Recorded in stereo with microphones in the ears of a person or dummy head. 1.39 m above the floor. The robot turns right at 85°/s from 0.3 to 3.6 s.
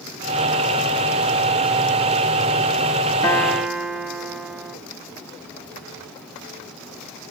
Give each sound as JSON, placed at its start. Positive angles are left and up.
{"t": 3.2, "sound": "a guitar", "azimuth_deg": 155, "distance_m": 1.0}